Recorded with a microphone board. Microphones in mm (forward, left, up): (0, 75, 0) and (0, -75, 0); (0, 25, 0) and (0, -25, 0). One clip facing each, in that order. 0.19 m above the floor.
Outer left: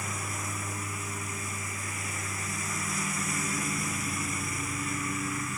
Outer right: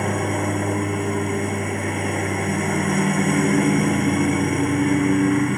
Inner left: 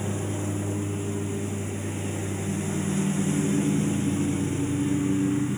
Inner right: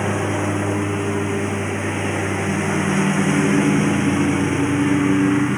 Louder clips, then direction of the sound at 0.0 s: Outer right 16 dB, inner right 9 dB; 60° right (ahead or behind).